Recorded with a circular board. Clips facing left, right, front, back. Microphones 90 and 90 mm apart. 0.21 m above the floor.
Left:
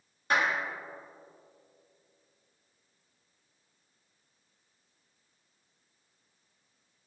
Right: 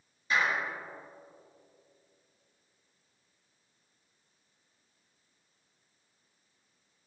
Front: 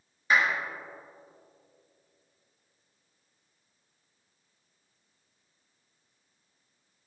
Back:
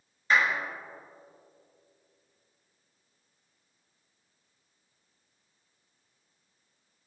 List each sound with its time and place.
0.3 s a clap: 80° left, 2.5 m